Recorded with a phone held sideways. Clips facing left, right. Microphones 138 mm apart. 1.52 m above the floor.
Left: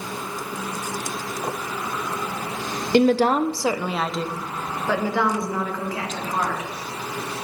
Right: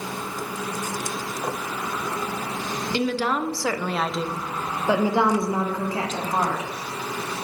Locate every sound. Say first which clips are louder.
2.9 s a woman speaking: left 8 dB; 55° left (ahead or behind), 0.7 m; by 6.7 s 30° right (ahead or behind), 2.5 m